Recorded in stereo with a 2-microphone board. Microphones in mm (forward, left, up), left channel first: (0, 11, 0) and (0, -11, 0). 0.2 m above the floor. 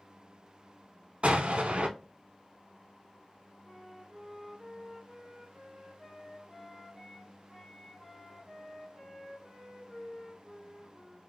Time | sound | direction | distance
1.2 | an explosion | 60° right (ahead or behind) | 0.6 m
3.6 | a flute | 10° left (ahead or behind) | 1.5 m